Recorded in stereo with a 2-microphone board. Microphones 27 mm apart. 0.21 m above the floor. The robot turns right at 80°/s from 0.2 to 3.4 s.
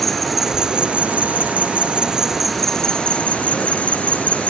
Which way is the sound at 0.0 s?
175° left.